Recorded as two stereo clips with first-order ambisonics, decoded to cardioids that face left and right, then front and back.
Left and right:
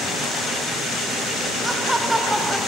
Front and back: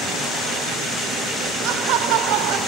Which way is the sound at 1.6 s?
170° right.